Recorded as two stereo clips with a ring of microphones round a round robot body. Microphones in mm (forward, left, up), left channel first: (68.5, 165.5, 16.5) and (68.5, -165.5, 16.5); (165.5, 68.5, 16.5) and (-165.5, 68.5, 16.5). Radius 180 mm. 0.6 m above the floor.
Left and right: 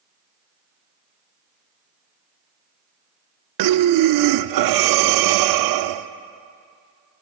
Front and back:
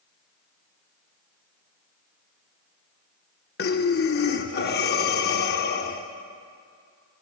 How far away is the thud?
I don't hear a thud.